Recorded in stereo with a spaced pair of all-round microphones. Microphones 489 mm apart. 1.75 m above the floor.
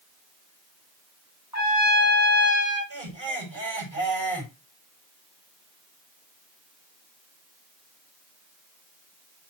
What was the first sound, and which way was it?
A trumpet, 35° left (ahead or behind).